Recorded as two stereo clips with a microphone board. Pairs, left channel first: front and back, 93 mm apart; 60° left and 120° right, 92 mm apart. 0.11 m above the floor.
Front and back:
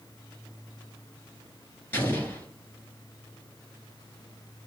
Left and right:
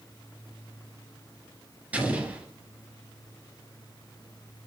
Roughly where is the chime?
I don't hear a chime.